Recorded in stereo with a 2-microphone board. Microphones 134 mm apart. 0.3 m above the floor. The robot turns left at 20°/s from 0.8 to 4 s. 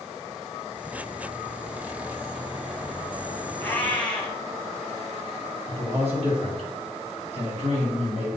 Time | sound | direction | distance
3.6 | a cat meowing | 15° left (ahead or behind) | 1.1 m
5.7 | a man speaking | 55° right (ahead or behind) | 2 m